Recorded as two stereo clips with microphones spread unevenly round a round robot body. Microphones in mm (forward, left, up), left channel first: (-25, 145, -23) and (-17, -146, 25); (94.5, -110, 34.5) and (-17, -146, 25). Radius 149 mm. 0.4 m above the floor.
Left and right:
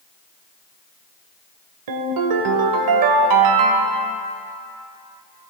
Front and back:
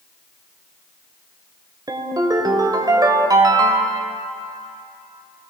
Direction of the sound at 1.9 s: 105° right.